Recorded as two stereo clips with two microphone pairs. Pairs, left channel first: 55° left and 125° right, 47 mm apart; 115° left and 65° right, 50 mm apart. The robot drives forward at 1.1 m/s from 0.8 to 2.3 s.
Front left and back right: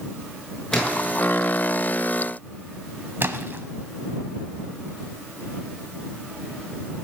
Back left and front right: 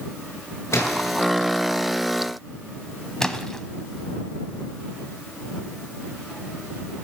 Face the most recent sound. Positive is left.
turn(degrees=-160)